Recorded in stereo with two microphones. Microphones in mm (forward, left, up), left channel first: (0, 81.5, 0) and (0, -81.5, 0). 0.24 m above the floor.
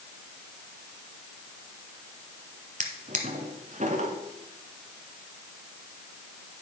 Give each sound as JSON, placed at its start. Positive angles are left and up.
{"t": 2.8, "sound": "a drawer", "side_deg": -50, "distance_m": 1.2}